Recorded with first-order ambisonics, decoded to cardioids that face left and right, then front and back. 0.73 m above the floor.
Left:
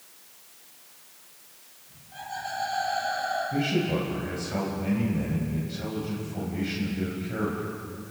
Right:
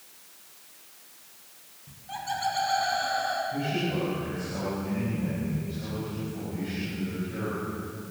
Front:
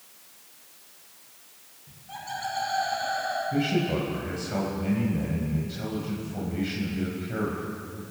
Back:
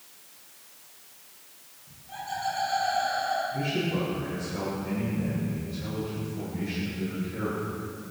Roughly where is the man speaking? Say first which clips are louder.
Left 3 dB, front 3 dB; ahead left.